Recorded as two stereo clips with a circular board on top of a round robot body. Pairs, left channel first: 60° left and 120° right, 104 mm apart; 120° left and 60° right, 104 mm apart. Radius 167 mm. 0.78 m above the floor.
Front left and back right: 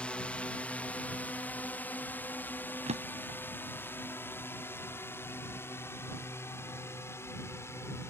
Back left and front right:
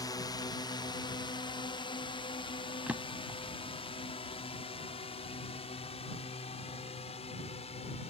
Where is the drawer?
140° right.